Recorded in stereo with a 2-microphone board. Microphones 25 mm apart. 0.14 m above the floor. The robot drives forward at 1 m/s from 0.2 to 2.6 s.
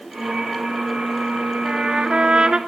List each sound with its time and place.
1.6 s a trumpet: 25° right (ahead or behind), 1.1 m; by 2.6 s 45° right (ahead or behind), 0.7 m